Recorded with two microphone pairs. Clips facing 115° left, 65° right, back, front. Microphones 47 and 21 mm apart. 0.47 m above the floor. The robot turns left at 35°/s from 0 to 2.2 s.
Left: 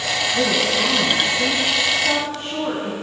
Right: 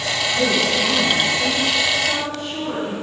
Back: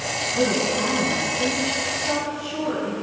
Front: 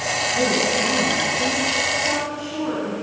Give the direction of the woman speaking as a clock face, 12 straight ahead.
7 o'clock.